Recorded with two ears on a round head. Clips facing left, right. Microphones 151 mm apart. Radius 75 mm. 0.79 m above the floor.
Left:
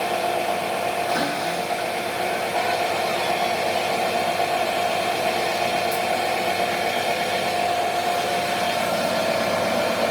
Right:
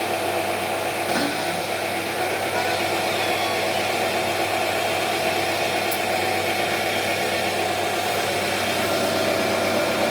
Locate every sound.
0.0 s an engine running: 60° right (ahead or behind), 1.9 m
1.1 s a cupboard door: 45° right (ahead or behind), 1.3 m